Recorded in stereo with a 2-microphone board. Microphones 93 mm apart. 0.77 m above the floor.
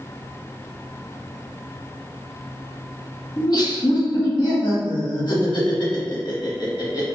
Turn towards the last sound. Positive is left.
turn(degrees=50)  # may be behind; listen again after turning